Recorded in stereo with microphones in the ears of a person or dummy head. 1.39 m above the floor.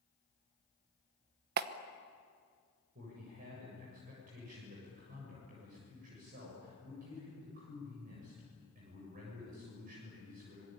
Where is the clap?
50° right (ahead or behind), 1.1 m.